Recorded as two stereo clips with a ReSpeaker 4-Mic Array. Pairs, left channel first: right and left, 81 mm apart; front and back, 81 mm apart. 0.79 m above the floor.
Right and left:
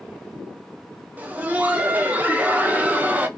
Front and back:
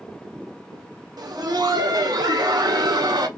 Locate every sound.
1.2 s laughter: 160° left, 0.7 m